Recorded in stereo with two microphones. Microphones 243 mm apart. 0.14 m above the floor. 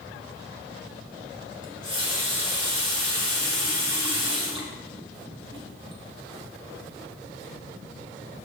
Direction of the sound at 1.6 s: 20° right (ahead or behind).